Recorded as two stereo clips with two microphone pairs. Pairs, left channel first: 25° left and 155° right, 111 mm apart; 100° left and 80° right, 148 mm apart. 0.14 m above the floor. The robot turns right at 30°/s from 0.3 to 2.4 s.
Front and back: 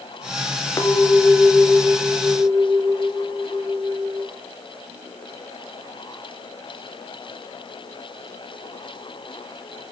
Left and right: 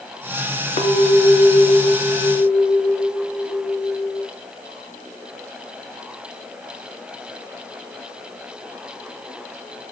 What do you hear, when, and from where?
0.8 s a clink: 85° left, 1.6 m; by 4.3 s 135° left, 1.6 m